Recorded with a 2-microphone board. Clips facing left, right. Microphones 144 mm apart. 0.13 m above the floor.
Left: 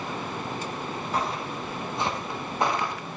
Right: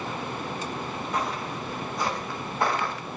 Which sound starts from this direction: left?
Footsteps, at 1.1 s.